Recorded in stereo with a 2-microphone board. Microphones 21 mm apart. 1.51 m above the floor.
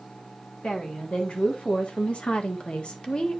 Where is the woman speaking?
75° left (ahead or behind), 3 m; by 3.4 s 45° left (ahead or behind), 1.5 m.